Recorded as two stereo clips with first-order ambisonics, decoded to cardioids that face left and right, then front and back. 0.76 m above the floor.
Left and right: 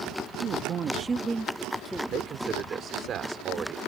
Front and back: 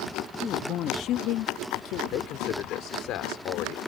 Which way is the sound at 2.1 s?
35° right.